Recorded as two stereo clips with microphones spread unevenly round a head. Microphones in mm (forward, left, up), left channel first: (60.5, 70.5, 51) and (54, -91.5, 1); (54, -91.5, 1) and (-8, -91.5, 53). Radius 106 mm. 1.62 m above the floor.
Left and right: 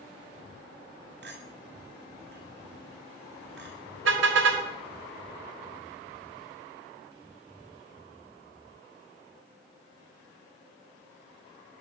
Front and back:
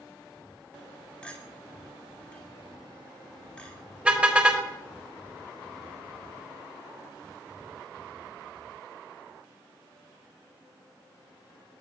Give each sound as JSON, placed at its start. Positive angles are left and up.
{"t": 1.2, "sound": "a clink", "azimuth_deg": -80, "distance_m": 7.5}
{"t": 4.0, "sound": "a car horn", "azimuth_deg": -120, "distance_m": 4.0}